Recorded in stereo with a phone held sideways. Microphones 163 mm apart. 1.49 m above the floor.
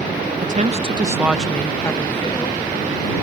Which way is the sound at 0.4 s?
60° right (ahead or behind).